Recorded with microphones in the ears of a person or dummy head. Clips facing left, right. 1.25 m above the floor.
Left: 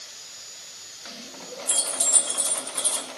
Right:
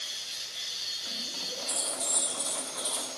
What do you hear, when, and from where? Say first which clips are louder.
1.7 s keys jangling: left 3 dB; 50° left (ahead or behind), 1.8 m